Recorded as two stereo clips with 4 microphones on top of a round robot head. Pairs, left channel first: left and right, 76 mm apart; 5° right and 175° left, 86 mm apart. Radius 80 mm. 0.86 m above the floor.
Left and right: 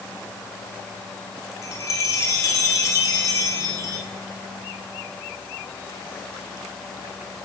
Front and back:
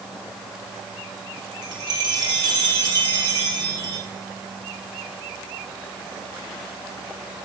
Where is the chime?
135° left, 3 m.